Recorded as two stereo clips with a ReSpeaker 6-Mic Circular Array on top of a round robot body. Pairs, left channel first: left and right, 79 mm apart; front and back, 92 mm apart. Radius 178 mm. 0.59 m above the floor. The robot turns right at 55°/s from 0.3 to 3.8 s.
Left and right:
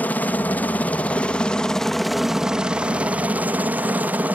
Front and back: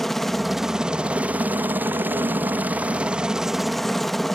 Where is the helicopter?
85° left; by 4.4 s 85° right.